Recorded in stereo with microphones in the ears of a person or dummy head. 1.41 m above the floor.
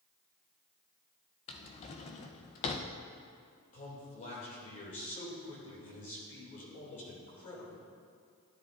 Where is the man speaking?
40° left (ahead or behind), 2.5 m.